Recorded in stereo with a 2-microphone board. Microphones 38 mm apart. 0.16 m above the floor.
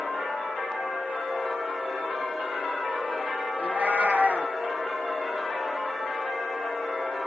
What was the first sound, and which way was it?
A cat meowing, 50° right (ahead or behind).